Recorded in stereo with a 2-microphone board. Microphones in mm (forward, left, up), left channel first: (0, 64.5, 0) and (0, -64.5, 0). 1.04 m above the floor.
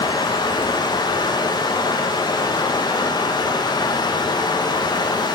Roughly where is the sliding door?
No sliding door in this recording.